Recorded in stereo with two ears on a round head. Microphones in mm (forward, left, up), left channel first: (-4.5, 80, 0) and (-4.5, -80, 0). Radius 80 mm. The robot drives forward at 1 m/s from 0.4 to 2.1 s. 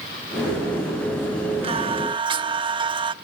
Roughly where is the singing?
Right.